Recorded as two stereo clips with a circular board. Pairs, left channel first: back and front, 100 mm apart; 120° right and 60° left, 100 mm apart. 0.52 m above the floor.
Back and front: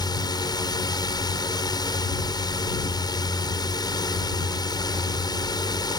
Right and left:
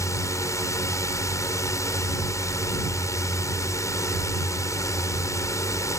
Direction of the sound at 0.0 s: 165° right.